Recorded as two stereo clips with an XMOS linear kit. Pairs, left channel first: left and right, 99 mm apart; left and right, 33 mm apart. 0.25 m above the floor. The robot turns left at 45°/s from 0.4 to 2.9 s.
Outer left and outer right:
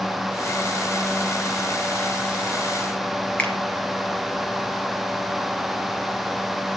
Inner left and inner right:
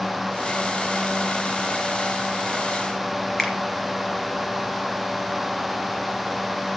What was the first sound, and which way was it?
A finger snap, 15° left (ahead or behind).